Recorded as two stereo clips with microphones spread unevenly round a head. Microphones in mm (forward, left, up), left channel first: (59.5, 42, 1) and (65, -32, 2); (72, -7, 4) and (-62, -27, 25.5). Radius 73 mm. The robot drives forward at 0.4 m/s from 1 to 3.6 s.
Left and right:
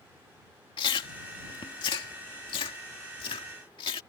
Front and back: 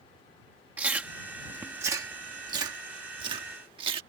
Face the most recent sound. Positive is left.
turn(degrees=135)